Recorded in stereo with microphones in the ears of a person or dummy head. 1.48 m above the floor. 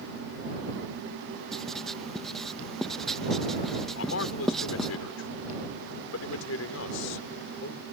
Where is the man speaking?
75° left (ahead or behind).